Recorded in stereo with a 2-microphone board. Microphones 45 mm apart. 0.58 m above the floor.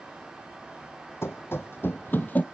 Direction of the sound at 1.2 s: 65° left (ahead or behind).